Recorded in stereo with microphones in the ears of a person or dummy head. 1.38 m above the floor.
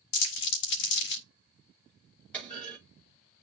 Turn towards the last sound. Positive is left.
turn(degrees=10)  # may be behind; listen again after turning